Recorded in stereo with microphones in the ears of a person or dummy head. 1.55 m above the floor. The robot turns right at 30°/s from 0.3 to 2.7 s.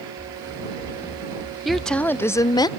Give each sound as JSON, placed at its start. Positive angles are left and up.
{"t": 0.2, "sound": "running footsteps", "side_deg": 15}
{"t": 1.6, "sound": "a woman speaking", "azimuth_deg": -5}